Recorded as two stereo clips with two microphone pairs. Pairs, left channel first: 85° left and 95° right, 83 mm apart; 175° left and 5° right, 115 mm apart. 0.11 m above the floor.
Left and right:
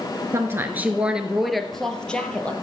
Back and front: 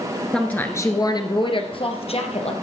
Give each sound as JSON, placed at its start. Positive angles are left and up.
{"t": 0.3, "sound": "a woman speaking", "azimuth_deg": -105, "distance_m": 1.2}